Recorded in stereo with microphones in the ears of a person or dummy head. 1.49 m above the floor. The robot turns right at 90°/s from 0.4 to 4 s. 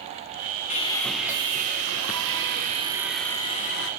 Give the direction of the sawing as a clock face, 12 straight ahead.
7 o'clock.